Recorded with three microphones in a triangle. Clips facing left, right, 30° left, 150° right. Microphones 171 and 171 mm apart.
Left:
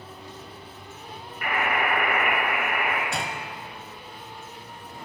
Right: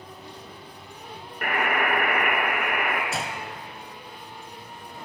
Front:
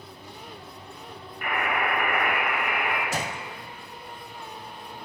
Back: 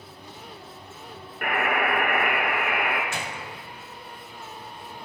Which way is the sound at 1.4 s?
125° right.